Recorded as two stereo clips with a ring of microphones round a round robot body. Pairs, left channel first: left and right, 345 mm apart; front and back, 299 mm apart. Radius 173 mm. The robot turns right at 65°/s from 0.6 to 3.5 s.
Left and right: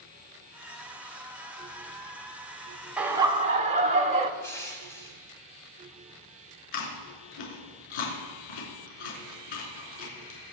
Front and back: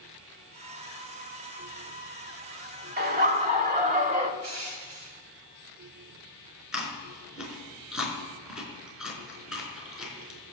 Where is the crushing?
170° left, 2 m.